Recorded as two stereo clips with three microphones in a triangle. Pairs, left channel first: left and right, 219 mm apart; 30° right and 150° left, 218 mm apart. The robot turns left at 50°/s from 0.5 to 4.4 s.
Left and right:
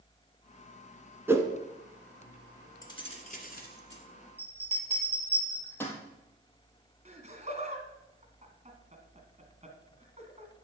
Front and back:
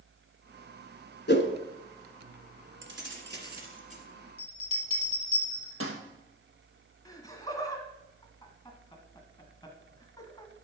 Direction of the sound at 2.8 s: 160° left.